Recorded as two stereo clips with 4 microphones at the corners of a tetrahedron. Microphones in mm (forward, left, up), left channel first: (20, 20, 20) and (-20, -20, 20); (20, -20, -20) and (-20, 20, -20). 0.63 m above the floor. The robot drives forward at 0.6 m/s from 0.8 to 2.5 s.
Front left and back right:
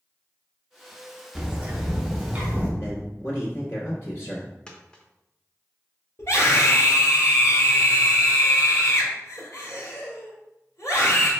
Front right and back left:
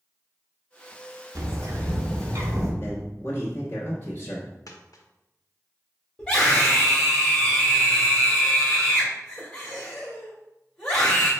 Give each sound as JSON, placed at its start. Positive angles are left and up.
{"t": 1.4, "sound": "a bird", "azimuth_deg": 150, "distance_m": 0.7}
{"t": 2.8, "sound": "a man speaking", "azimuth_deg": 0, "distance_m": 1.3}
{"t": 4.7, "sound": "a dropped coin", "azimuth_deg": -30, "distance_m": 0.7}
{"t": 6.2, "sound": "a scream", "azimuth_deg": 25, "distance_m": 1.5}